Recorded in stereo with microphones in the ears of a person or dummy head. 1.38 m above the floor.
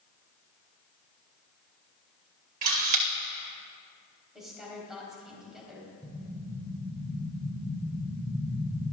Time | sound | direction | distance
2.6 | a camera shutter | 40° right (ahead or behind) | 1.4 m
4.3 | a woman speaking | 5° right (ahead or behind) | 4 m
6.0 | an explosion | 10° left (ahead or behind) | 3 m